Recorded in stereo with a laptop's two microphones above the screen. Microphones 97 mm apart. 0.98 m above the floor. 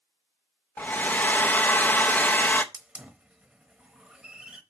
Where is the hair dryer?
20° left (ahead or behind), 0.6 m.